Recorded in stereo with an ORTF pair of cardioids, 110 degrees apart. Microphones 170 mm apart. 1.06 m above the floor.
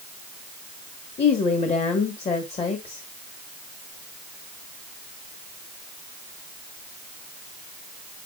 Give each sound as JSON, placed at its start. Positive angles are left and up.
{"t": 1.2, "sound": "a woman speaking", "azimuth_deg": 40, "distance_m": 1.4}